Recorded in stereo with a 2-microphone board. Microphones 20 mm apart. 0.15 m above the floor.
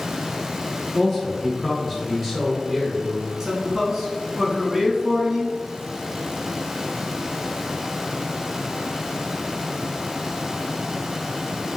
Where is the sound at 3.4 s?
20° right (ahead or behind), 1.1 m.